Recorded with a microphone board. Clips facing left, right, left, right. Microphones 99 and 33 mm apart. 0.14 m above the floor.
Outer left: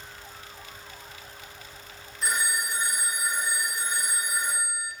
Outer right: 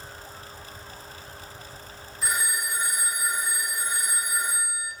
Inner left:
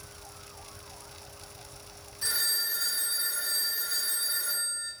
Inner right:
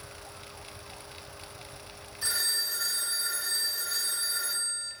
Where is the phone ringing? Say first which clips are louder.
Outer left 1 dB, even; 5° right (ahead or behind), 1.0 m.